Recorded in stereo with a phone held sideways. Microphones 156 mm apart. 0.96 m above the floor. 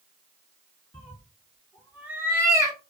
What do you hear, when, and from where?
0.9 s a cat meowing: 10° left (ahead or behind), 1.1 m; by 2.8 s 25° right (ahead or behind), 1.0 m